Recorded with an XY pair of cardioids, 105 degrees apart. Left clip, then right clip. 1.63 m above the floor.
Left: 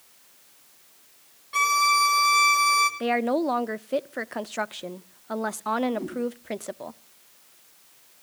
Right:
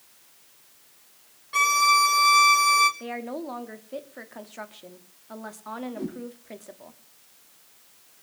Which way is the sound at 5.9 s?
Straight ahead.